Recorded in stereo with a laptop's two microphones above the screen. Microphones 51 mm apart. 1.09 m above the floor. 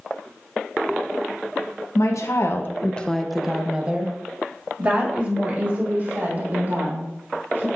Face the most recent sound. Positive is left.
turn(degrees=-45)  # may be behind; listen again after turning